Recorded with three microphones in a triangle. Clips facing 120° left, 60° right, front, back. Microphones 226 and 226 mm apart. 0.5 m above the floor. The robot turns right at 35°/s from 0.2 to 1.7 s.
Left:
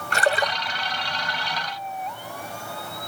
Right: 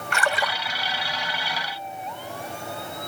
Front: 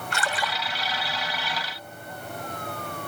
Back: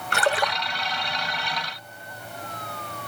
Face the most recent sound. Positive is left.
turn(degrees=-140)